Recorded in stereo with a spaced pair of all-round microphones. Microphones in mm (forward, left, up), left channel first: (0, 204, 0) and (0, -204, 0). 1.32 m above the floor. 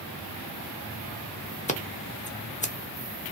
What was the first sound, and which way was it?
Scissors, 20° left (ahead or behind).